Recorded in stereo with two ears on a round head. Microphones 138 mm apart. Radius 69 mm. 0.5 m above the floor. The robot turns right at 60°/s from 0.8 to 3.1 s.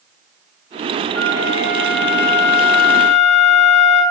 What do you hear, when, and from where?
1.1 s a flute: 15° left, 7.5 m; by 4.0 s 130° left, 7.5 m